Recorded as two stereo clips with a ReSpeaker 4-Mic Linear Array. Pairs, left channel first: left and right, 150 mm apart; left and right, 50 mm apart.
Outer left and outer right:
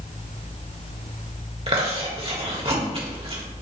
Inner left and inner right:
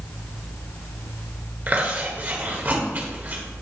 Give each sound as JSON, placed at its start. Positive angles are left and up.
{"t": 1.7, "sound": "chewing", "side_deg": -40, "distance_m": 1.6}